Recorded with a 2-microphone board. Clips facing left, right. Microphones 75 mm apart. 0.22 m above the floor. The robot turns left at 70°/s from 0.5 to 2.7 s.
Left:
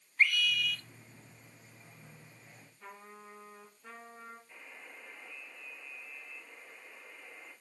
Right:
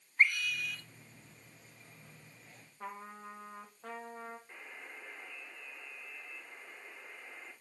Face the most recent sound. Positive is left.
turn(degrees=-45)  # may be behind; listen again after turning